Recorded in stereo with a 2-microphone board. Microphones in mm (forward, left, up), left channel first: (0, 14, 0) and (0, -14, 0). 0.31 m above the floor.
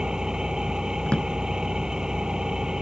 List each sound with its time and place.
0.0 s an engine running: 25° right (ahead or behind)
1.1 s a drawer: 35° left (ahead or behind)